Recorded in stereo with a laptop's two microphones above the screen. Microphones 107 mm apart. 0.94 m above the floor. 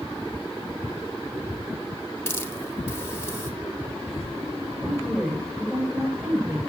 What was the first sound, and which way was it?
A hiss, 25° left (ahead or behind).